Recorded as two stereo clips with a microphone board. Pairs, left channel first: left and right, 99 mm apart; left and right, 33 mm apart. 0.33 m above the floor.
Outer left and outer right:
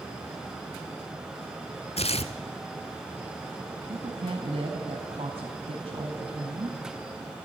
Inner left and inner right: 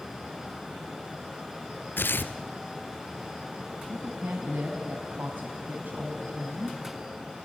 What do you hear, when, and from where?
2.0 s tearing paper: 80° left, 0.9 m
3.9 s a woman speaking: 65° right (ahead or behind), 2 m